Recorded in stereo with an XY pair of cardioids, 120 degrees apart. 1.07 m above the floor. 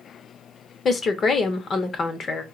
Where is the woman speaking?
40° left, 0.7 m.